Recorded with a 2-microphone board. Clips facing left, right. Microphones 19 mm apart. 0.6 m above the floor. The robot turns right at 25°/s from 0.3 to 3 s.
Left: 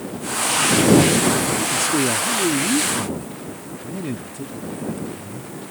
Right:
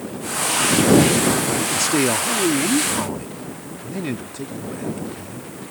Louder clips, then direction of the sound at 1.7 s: Right 2 dB; 110° right.